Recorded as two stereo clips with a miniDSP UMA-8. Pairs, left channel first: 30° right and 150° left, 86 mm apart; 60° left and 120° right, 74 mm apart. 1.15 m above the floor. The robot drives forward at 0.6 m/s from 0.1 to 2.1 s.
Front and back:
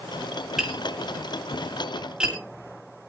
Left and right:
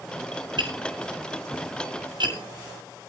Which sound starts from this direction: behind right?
Tapping, at 0.6 s.